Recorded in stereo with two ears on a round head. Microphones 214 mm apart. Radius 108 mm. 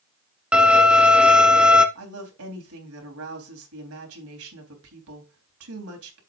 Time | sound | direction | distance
0.5 | a violin | 5° right (ahead or behind) | 0.8 m
1.9 | a woman speaking | 65° right (ahead or behind) | 3.5 m